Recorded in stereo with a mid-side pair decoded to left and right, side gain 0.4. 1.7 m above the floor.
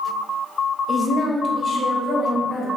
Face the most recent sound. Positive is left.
turn(degrees=65)